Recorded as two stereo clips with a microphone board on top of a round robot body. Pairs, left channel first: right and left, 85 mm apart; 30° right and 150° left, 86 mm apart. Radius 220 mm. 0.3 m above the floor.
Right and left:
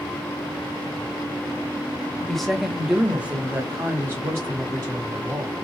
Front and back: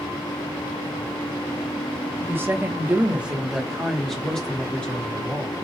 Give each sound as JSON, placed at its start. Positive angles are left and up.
{"t": 2.2, "sound": "a woman speaking", "azimuth_deg": -170, "distance_m": 1.5}